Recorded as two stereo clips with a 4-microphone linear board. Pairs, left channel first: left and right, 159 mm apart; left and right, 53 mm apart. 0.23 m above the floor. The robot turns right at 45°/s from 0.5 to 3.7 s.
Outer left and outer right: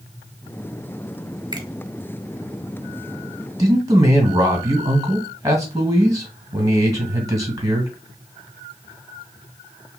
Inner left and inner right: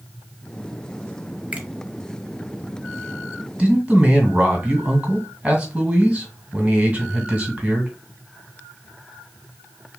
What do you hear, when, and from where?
1.5 s a finger snap: 25° right (ahead or behind), 1.2 m; by 1.7 s 20° right (ahead or behind), 1.2 m
3.6 s a man speaking: 25° right (ahead or behind), 1.7 m; by 7.9 s 20° right (ahead or behind), 1.7 m